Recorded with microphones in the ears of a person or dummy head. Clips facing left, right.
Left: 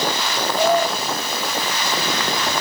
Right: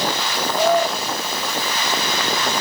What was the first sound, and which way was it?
Only background noise.